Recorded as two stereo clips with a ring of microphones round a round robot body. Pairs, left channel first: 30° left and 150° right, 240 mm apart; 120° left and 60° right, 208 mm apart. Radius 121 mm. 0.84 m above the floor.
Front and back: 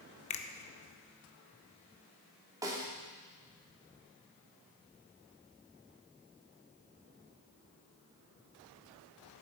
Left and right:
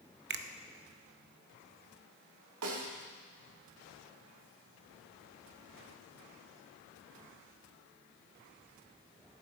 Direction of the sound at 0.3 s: 30° right.